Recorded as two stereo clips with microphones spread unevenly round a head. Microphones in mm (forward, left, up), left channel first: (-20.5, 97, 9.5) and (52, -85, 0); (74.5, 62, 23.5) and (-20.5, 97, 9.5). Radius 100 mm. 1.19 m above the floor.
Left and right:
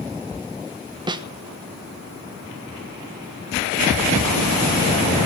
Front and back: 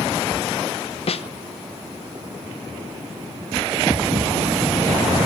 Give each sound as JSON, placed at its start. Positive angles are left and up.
{"t": 1.1, "sound": "a snare drum", "azimuth_deg": -5, "distance_m": 1.1}